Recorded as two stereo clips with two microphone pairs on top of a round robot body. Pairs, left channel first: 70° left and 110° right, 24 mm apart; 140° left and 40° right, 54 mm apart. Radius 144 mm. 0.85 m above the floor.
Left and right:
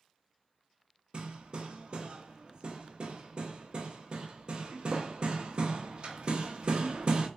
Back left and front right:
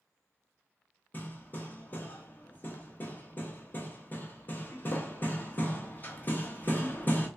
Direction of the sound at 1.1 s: 160° right.